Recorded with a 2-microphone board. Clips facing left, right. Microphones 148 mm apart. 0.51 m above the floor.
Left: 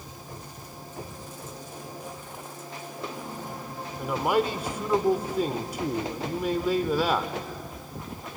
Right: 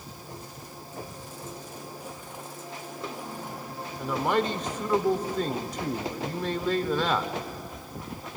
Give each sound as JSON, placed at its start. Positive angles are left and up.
{"t": 4.0, "sound": "a man speaking", "side_deg": 10, "distance_m": 1.2}